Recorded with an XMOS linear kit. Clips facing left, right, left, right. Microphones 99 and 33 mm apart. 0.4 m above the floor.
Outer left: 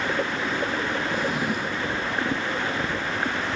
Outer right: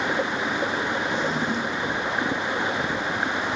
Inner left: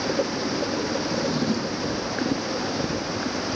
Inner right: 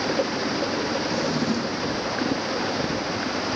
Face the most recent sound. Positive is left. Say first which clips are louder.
# outer right 1 dB, even
turn(degrees=5)  # may be behind; listen again after turning